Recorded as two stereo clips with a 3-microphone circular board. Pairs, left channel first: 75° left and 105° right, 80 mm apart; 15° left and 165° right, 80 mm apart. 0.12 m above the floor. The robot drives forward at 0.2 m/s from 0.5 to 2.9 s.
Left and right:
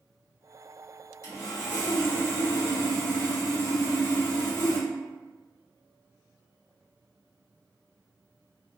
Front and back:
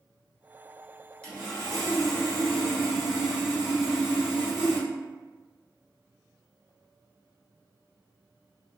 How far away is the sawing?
About 1.3 m.